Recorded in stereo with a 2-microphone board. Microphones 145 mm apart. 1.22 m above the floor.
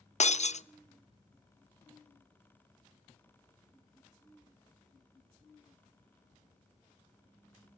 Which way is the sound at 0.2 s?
50° left (ahead or behind).